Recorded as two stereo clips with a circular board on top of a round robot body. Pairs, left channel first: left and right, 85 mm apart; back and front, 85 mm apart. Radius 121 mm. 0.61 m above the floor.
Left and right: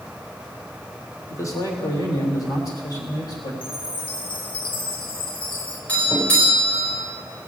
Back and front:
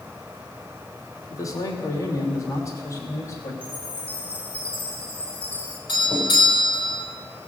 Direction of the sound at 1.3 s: 140° left.